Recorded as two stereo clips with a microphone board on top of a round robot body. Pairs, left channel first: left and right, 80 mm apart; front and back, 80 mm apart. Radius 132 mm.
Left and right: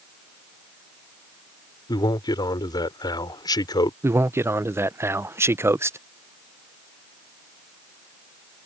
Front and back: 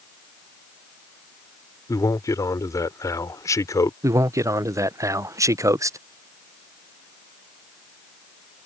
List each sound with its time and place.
1.9 s a man speaking: 50° left
4.0 s a man speaking: 140° right